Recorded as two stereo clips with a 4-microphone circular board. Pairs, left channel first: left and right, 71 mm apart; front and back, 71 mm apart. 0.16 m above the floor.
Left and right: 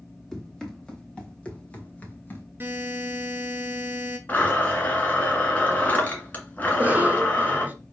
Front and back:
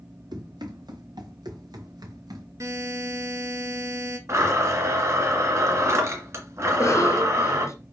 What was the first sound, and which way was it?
Running footsteps, 175° left.